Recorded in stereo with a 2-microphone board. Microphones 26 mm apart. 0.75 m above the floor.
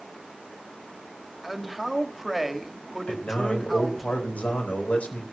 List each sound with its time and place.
1.4 s a man speaking: centre (ahead or behind), 1.9 m
3.1 s a man speaking: 80° left, 4.5 m